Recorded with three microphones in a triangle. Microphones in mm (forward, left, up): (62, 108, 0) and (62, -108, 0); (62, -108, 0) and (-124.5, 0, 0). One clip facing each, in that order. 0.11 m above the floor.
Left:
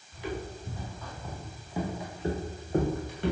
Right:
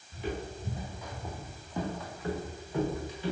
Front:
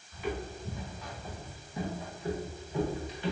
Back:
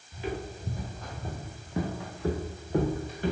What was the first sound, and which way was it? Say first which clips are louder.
Footsteps: even, back 1 dB; 150° right.